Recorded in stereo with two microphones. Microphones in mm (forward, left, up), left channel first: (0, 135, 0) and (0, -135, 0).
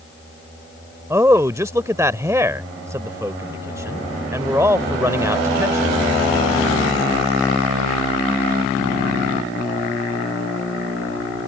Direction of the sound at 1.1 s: 10° right (ahead or behind).